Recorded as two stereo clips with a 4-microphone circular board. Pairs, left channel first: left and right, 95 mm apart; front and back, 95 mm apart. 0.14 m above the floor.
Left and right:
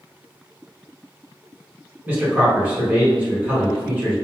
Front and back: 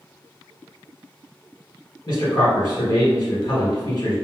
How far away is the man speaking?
About 1.4 m.